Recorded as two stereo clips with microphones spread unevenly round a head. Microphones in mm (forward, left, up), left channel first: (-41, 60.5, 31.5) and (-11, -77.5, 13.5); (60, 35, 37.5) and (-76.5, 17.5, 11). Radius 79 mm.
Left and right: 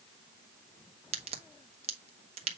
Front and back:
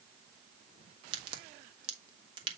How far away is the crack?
About 1.3 m.